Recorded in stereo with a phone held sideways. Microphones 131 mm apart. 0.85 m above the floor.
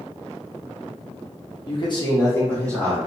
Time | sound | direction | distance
1.7 | a man speaking | 45° left (ahead or behind) | 0.8 m